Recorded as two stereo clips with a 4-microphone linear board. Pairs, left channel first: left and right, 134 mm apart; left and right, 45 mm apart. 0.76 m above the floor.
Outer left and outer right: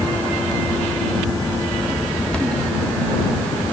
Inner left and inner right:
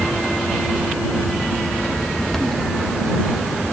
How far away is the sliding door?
I don't hear a sliding door.